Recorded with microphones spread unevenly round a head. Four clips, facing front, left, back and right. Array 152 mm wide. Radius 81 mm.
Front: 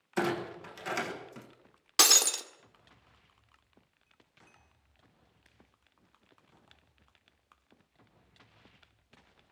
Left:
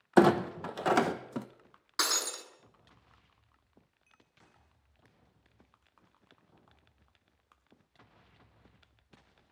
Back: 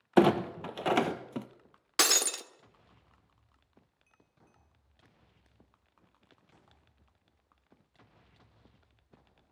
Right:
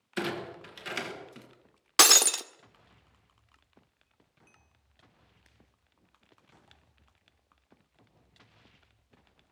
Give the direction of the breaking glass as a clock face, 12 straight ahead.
4 o'clock.